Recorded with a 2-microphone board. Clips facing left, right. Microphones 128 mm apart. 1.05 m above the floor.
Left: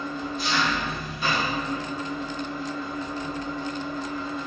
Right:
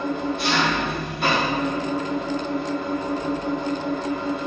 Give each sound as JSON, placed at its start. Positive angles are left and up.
{"t": 0.0, "sound": "an engine running", "side_deg": -70, "distance_m": 1.2}